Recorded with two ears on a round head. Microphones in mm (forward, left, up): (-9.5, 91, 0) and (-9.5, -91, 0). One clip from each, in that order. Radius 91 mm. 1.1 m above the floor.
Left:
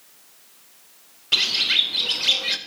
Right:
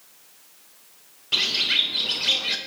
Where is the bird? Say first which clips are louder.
Left 2 dB; 20° left (ahead or behind), 0.6 m.